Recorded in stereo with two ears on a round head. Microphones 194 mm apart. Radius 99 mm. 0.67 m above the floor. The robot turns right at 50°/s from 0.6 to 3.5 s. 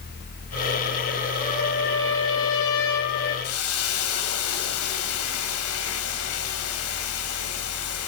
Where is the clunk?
No clunk in this recording.